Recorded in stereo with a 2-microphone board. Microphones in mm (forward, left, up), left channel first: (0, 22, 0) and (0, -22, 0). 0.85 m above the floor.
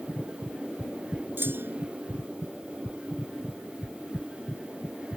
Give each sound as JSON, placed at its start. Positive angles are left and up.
{"t": 1.4, "sound": "a clunk", "side_deg": -60}